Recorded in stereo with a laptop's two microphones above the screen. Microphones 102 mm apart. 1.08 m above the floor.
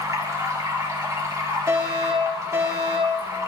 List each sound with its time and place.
0.0 s running water: 30° right (ahead or behind), 2.5 m
1.7 s a fire alarm: 35° right (ahead or behind), 5 m